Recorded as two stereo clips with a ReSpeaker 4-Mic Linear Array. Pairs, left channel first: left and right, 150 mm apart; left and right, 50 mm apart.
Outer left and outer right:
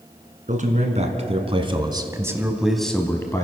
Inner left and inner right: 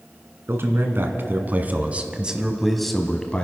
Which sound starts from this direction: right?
A man speaking, at 0.5 s.